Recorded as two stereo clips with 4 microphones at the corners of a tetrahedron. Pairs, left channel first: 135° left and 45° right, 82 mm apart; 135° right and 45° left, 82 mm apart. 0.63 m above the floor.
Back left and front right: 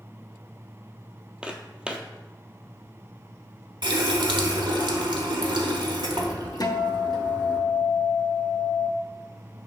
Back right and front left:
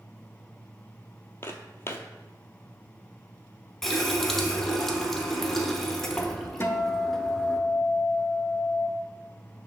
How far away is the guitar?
About 0.6 m.